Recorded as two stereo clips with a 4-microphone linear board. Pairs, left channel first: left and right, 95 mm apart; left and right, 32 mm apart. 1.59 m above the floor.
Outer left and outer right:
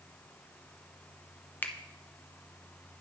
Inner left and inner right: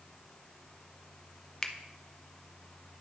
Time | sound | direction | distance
1.6 | a finger snap | 20° left (ahead or behind) | 0.6 m